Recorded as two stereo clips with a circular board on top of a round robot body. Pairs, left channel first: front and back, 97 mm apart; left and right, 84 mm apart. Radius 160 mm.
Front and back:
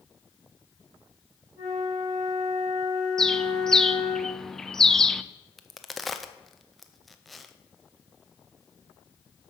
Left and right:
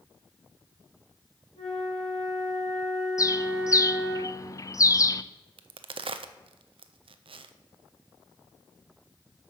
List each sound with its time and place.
1.6 s a flute: 105° left, 4 m
3.2 s a bird: 85° left, 0.6 m
5.6 s a crack: 90° right, 0.5 m